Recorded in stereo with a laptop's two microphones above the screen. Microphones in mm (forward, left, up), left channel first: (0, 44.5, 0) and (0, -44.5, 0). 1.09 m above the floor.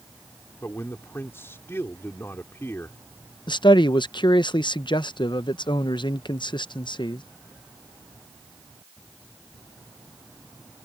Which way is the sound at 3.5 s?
65° left (ahead or behind).